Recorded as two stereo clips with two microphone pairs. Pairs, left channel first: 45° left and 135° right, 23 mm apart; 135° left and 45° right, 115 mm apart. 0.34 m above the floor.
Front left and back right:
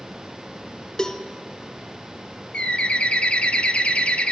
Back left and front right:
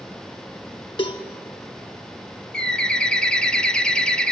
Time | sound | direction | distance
1.0 | a cowbell | 95° left | 1.7 m
2.5 | a bird | 55° left | 0.8 m